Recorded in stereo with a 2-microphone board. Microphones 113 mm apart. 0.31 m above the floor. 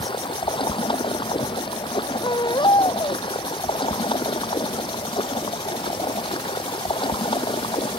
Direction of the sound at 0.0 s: 50° left (ahead or behind).